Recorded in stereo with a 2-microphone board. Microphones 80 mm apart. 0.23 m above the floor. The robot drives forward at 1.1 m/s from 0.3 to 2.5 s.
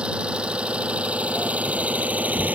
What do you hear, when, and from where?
0.0 s an engine running: 15° right (ahead or behind); by 2.6 s 20° right (ahead or behind)